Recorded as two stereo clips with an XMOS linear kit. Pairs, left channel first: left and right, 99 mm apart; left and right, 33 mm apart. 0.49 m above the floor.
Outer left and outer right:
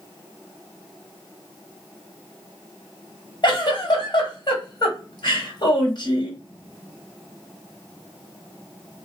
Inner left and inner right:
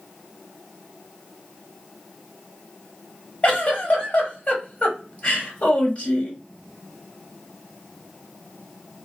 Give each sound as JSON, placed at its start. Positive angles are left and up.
{"t": 3.4, "sound": "a giggle", "side_deg": 50, "distance_m": 1.2}